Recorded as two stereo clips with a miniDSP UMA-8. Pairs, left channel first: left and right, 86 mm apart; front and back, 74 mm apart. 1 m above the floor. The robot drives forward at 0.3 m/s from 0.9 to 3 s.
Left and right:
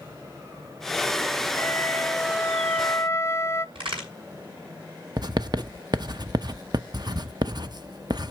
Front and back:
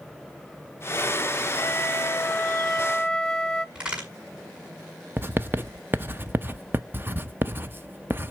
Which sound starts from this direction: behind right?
Writing, at 5.2 s.